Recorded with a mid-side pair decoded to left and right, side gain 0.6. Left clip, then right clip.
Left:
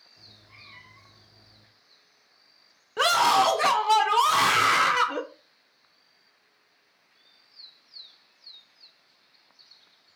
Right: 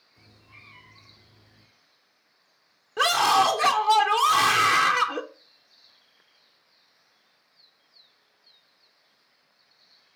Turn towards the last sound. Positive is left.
turn(degrees=5)